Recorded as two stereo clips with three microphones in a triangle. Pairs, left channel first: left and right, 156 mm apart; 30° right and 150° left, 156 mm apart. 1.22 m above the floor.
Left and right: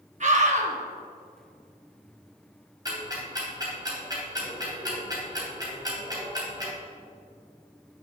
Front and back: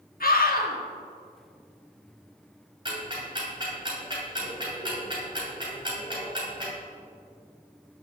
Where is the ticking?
150° right, 2.5 m.